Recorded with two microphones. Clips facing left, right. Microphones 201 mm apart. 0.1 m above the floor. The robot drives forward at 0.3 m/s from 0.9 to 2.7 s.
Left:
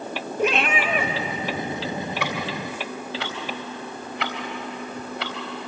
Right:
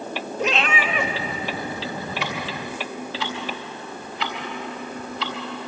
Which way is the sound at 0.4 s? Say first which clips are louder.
Left 2 dB; 55° left (ahead or behind).